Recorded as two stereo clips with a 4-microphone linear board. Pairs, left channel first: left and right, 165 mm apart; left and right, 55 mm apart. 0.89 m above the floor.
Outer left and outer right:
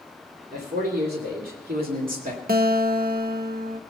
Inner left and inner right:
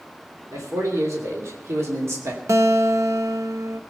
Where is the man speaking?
75° right (ahead or behind), 3 m; by 2.4 s 55° right (ahead or behind), 2 m.